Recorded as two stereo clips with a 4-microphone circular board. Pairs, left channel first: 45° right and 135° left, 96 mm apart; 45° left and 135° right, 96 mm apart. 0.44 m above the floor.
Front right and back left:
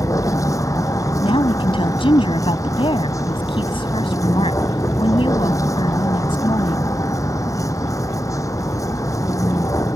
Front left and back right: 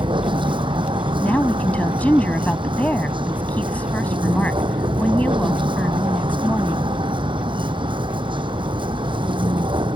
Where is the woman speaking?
30° right.